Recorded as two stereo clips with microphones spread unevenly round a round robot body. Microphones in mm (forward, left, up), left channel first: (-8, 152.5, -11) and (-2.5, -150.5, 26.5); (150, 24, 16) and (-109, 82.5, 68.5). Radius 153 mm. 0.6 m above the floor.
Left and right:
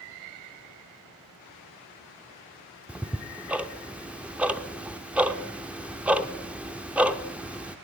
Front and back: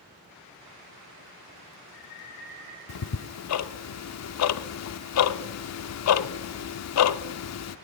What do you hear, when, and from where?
2.9 s ticking: straight ahead, 0.7 m